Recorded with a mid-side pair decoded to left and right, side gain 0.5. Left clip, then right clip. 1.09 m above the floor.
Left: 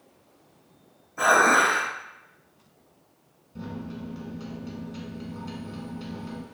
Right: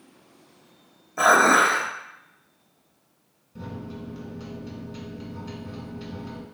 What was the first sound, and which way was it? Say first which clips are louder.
Dishes clattering: right 2 dB; 60° right.